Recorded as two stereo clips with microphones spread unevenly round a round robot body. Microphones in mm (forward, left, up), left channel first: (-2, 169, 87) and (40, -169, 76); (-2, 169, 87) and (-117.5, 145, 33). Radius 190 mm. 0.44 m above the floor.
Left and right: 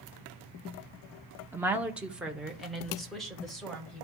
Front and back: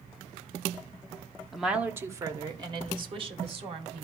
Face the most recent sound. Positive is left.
turn(degrees=-175)